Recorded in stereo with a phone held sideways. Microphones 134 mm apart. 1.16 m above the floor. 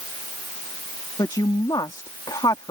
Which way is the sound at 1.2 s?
30° left (ahead or behind).